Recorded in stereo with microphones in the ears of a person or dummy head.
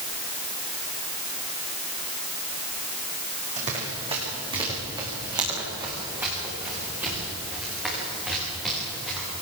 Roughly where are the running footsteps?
Right.